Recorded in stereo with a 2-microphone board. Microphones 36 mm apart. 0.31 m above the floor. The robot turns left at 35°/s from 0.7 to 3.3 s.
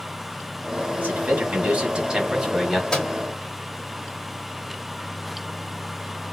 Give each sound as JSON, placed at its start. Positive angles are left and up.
{"t": 1.0, "sound": "a man speaking", "azimuth_deg": -115, "distance_m": 1.6}
{"t": 2.9, "sound": "a microwave", "side_deg": 15, "distance_m": 0.9}